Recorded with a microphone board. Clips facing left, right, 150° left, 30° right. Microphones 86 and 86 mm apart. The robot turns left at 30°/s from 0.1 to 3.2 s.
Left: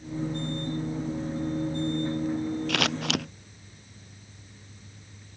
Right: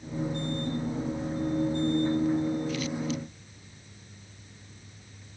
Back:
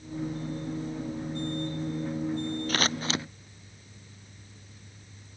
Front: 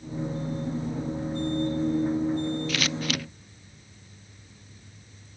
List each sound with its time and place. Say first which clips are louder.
2.7 s scissors: left 3 dB, even; 100° left; by 3.2 s 85° left